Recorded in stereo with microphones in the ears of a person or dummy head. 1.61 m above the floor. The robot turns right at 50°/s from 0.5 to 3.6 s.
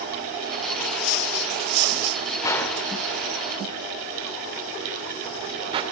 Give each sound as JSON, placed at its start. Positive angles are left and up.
{"t": 2.4, "sound": "a gunshot", "side_deg": 20, "distance_m": 1.9}